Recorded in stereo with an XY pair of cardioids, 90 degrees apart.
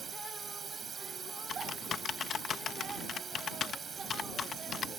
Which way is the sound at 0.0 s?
55° right.